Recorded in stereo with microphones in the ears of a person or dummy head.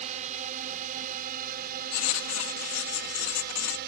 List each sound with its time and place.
0.0 s a drone: 40° right (ahead or behind); by 3.9 s 60° right (ahead or behind)
1.9 s writing: 80° left